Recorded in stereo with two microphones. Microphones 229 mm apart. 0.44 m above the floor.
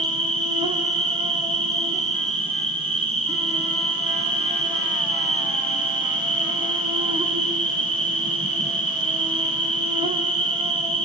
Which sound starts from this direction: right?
An insect, at 0.0 s.